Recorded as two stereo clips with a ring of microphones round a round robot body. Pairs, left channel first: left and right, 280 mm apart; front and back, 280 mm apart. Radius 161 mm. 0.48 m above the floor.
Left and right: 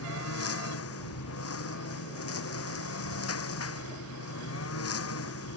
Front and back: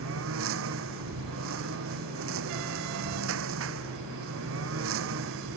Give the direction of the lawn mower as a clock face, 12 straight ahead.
8 o'clock.